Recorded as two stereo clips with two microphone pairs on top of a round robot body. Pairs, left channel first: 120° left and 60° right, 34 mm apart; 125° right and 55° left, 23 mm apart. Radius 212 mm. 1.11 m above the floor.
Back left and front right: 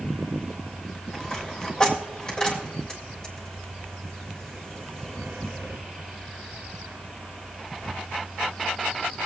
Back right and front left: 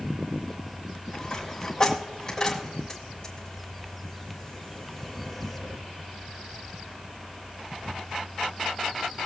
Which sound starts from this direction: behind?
A dropped coin, at 1.1 s.